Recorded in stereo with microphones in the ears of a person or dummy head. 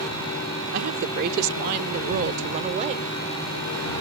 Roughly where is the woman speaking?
Right.